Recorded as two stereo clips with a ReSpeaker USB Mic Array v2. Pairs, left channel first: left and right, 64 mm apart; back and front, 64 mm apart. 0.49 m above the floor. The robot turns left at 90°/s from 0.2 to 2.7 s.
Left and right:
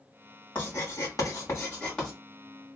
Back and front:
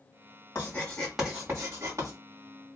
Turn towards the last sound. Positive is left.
turn(degrees=-50)